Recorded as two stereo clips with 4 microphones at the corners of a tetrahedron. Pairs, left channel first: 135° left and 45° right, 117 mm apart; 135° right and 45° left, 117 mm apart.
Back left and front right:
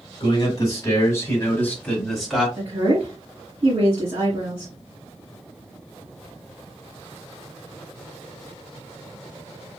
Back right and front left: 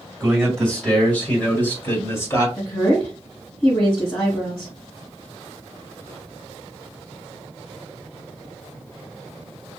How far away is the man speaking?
About 1.9 m.